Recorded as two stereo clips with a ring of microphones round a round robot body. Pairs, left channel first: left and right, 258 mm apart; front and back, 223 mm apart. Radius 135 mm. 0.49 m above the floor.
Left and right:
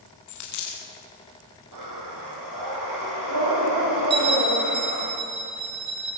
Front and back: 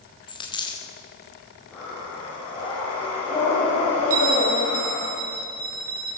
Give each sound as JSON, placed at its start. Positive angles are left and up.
{"t": 0.3, "sound": "a dropped coin", "azimuth_deg": 70, "distance_m": 6.0}
{"t": 1.7, "sound": "breathing", "azimuth_deg": -85, "distance_m": 8.5}
{"t": 4.1, "sound": "a bell", "azimuth_deg": -140, "distance_m": 4.0}